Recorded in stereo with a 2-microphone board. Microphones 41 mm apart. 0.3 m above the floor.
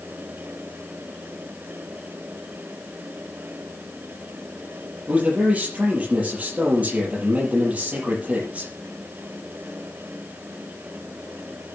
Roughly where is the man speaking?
Right.